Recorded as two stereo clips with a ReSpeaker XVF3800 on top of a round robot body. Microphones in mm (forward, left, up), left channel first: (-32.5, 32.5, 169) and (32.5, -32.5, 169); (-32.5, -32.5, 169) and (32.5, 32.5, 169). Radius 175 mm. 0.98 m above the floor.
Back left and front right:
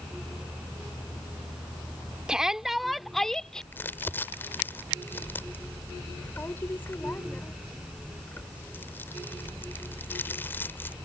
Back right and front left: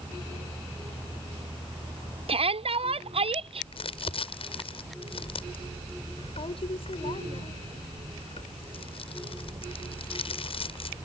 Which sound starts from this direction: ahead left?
A shout, at 2.3 s.